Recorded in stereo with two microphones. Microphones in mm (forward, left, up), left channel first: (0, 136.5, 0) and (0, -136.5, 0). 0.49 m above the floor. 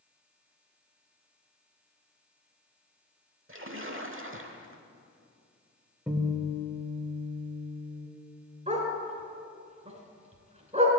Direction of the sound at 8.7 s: 25° right (ahead or behind).